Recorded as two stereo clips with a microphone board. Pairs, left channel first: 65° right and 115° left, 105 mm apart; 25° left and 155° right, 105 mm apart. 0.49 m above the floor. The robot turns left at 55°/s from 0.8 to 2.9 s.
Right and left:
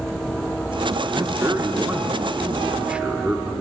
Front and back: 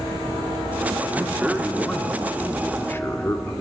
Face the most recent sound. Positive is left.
turn(degrees=50)